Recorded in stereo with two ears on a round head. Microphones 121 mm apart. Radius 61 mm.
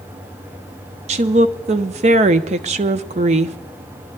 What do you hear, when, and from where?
1.1 s a woman speaking: 50° right (ahead or behind), 0.6 m